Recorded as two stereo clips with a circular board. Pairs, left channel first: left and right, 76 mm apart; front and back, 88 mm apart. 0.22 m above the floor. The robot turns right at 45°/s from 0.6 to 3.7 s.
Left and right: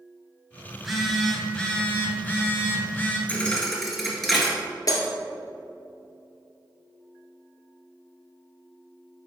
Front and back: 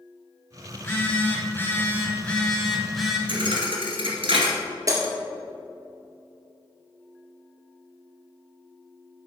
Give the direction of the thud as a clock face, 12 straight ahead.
7 o'clock.